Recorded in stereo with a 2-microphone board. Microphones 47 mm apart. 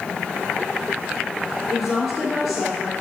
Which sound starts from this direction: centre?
A woman speaking, at 1.7 s.